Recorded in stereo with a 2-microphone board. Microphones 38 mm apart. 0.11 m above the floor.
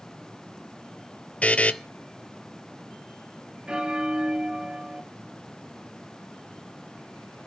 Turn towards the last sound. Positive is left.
turn(degrees=-25)  # may be behind; listen again after turning